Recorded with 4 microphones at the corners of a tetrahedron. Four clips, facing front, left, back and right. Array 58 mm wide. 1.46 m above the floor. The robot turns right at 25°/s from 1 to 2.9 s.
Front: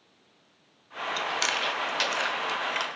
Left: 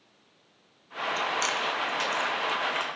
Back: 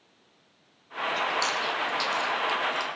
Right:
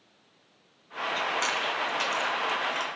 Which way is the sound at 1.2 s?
20° right.